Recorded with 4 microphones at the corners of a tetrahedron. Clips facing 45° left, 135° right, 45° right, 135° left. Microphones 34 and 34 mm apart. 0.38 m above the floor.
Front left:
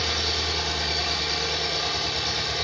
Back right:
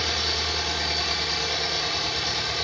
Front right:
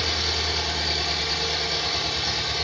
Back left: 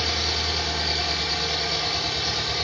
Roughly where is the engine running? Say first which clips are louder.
Even, even; behind right.